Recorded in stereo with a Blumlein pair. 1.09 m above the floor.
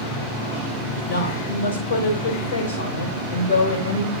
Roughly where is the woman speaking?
Ahead left.